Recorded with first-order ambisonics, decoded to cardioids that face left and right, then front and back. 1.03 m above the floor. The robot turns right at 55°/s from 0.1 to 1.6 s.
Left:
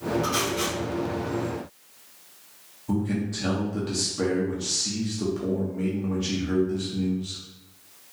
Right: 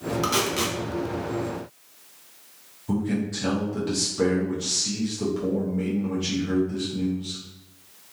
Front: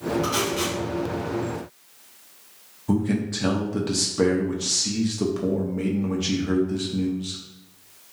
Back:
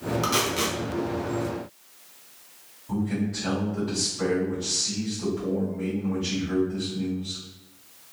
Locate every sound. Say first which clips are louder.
0.2 s tape being pulled: right 2 dB, even; 130° right, 0.7 m; by 0.8 s 100° right, 0.7 m
2.9 s a man speaking: right 1 dB, front 4 dB; straight ahead, 0.6 m